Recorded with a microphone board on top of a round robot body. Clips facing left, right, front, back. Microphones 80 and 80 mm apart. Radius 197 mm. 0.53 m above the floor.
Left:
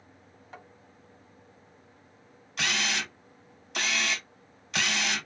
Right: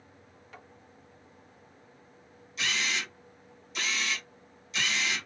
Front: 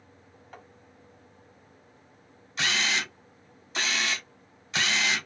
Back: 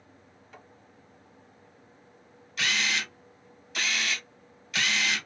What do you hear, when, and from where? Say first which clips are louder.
0.5 s tapping: left 3 dB, front 3 dB; 35° left, 1.2 m
2.6 s a camera shutter: left 2 dB, front 1 dB; 60° left, 0.7 m